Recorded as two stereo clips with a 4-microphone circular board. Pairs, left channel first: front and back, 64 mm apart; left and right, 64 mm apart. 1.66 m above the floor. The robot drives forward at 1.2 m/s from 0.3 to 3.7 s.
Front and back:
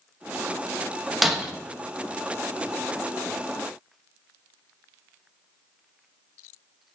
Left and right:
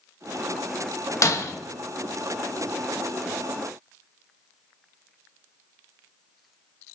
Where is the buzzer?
I don't hear a buzzer.